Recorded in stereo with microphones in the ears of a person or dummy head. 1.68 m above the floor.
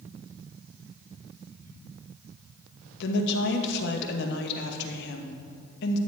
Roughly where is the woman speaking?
Left.